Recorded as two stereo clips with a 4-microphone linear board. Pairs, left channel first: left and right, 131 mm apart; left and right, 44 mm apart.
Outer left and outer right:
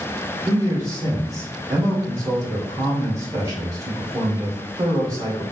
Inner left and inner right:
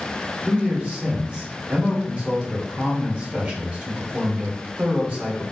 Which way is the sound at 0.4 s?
25° right (ahead or behind).